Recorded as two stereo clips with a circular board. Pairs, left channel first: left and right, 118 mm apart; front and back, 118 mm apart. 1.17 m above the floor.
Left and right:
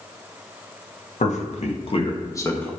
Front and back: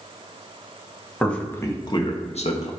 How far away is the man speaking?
About 1.5 m.